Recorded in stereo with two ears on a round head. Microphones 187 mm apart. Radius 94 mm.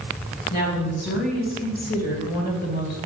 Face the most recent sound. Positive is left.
turn(degrees=50)  # may be behind; listen again after turning